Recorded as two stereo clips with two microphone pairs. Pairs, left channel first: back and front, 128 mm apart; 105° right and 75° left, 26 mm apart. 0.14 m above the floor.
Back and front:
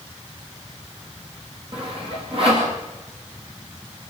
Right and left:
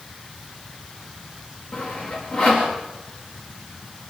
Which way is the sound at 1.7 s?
45° right.